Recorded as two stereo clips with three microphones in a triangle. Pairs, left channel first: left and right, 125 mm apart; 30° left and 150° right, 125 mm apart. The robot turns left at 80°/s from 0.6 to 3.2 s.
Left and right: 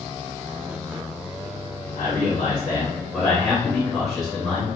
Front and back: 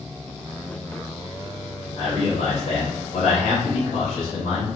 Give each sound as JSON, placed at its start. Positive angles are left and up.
{"t": 2.0, "sound": "a man speaking", "azimuth_deg": 100, "distance_m": 1.9}